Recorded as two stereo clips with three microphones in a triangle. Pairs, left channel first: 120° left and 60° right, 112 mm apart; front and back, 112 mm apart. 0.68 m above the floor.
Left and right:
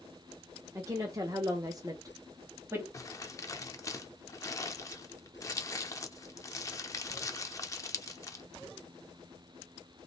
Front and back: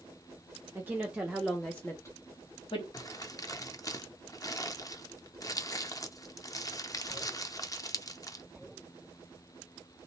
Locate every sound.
0.8 s a woman speaking: 115° right, 0.9 m; by 2.8 s straight ahead, 0.8 m
2.9 s crumpling: 60° left, 0.5 m